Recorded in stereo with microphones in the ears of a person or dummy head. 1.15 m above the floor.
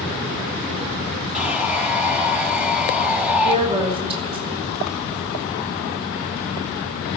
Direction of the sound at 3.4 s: 30° right (ahead or behind).